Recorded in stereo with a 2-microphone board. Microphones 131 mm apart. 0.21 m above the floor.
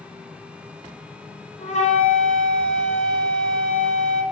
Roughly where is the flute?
Left.